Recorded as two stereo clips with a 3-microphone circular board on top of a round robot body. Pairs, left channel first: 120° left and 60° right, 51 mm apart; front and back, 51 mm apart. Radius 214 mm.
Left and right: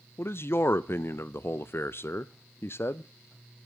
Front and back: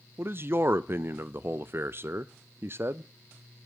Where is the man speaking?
150° left, 0.6 m.